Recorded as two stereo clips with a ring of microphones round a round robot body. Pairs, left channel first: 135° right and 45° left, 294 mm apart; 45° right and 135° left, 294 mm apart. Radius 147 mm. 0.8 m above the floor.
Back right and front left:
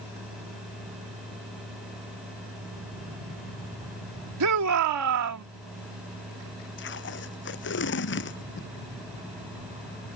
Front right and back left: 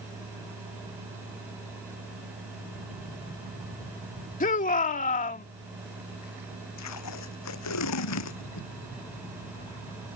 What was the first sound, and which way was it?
A shout, 20° left.